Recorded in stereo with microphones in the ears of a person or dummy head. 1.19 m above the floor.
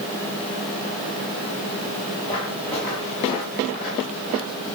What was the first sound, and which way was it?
Footsteps, 30° left (ahead or behind).